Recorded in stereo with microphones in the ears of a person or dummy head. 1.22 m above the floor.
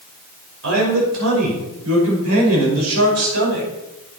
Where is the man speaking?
80° right, 5.5 m.